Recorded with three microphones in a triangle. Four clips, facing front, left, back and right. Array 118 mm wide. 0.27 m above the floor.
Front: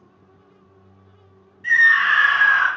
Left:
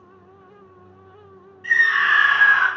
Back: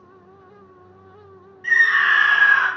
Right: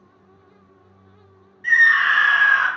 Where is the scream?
100° right, 1.3 m; by 2.7 s 25° left, 1.3 m.